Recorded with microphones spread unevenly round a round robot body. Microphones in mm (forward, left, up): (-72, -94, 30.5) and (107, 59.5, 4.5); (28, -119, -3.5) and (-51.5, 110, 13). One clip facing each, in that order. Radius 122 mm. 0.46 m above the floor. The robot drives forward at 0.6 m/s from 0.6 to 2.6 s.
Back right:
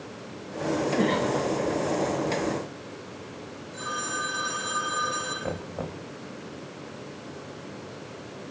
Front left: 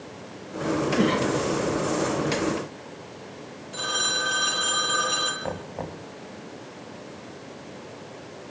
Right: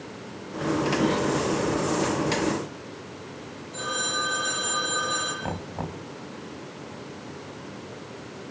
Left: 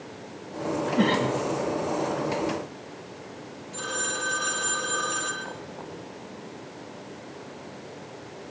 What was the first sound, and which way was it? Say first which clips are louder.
A cough: front left 3 dB, even; 115° left.